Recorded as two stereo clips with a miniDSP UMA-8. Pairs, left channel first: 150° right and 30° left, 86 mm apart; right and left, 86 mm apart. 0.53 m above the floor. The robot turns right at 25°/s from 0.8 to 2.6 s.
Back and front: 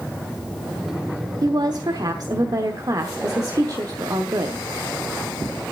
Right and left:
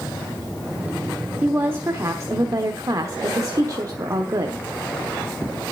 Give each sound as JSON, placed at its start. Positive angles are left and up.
{"t": 1.4, "sound": "a woman speaking", "azimuth_deg": 25, "distance_m": 1.0}